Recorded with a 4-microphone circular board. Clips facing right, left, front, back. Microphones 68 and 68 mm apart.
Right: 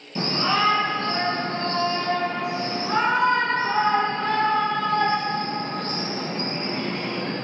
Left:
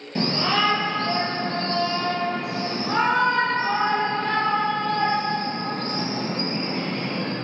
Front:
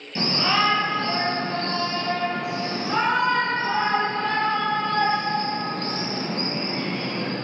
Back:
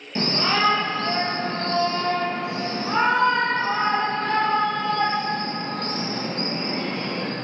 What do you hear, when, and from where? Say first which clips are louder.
0.1 s a shout: even, even; 115° left, 4 m; by 7.3 s 125° left, 9 m